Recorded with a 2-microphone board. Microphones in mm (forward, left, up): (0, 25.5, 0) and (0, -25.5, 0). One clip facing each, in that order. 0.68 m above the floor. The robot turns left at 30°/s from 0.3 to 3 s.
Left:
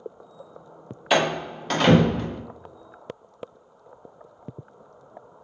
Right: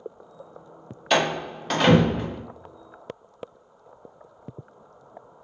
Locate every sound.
1.1 s a door slam: 5° left (ahead or behind), 0.6 m; by 2.4 s 15° right (ahead or behind), 0.6 m